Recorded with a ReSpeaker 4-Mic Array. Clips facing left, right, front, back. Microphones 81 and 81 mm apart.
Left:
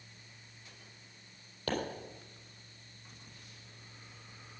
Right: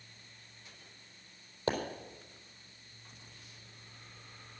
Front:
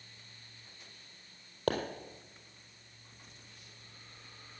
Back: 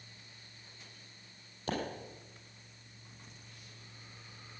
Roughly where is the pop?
Ahead.